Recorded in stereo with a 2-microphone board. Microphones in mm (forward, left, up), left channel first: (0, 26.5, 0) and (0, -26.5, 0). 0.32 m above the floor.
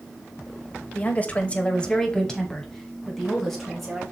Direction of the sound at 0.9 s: 30° left (ahead or behind).